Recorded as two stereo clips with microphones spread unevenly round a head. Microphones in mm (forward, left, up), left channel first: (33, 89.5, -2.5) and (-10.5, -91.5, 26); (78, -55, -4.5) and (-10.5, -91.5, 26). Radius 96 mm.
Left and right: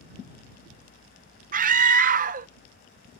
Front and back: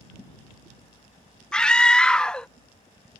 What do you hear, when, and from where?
1.5 s a scream: 70° right